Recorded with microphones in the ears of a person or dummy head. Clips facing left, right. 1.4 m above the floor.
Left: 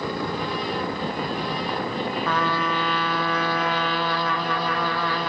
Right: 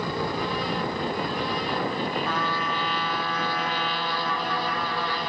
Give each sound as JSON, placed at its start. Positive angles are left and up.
{"t": 2.2, "sound": "a trumpet", "side_deg": 65, "distance_m": 1.2}